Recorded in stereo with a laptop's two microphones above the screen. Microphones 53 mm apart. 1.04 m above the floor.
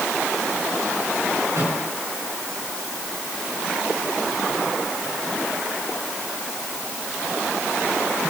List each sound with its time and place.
1.5 s a microwave: 80° right, 9.5 m